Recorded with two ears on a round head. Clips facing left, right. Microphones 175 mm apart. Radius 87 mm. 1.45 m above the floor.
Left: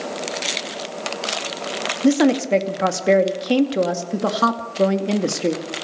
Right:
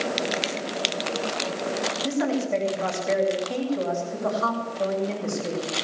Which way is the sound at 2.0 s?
80° left.